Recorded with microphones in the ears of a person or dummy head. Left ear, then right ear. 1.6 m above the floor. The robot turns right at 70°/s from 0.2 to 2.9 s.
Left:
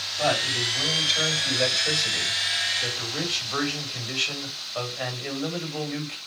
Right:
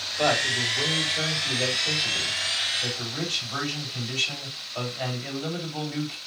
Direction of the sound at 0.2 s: 25° right.